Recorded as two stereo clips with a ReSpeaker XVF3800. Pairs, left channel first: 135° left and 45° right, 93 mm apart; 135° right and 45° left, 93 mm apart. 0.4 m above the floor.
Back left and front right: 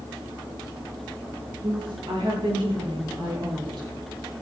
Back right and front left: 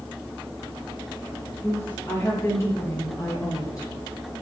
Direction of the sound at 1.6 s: 70° right.